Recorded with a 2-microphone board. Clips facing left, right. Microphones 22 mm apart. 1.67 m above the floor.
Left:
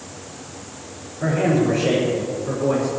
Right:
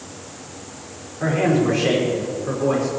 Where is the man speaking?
70° right (ahead or behind), 5 m; by 2.9 s 55° right (ahead or behind), 5 m.